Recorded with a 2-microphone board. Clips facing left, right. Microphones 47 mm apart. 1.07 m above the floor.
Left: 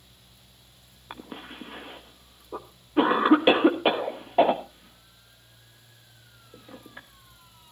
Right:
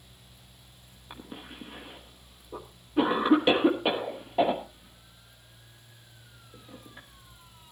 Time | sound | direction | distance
1.1 | a cough | 35° left (ahead or behind) | 1.3 m